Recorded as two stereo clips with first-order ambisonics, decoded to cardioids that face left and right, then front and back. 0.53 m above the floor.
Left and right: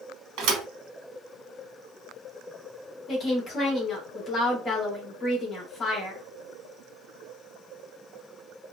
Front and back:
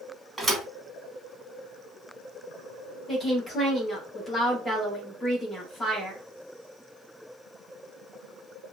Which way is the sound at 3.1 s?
55° left.